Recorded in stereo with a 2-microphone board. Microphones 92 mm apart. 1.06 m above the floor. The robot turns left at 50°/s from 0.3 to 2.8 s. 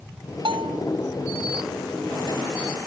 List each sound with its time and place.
0.5 s a bell: 75° right (ahead or behind); by 0.8 s 85° right